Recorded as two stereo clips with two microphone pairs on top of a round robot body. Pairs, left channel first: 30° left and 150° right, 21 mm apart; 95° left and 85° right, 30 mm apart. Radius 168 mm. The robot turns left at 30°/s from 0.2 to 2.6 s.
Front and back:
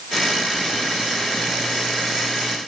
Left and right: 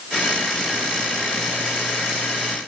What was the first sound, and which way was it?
Only background noise.